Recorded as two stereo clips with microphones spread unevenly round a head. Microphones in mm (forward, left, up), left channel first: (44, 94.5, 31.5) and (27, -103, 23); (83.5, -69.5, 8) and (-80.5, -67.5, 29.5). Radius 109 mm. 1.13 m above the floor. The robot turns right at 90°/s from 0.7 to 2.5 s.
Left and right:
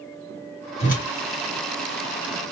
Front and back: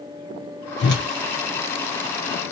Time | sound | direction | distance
0.8 | a whoosh | 25° left | 2.5 m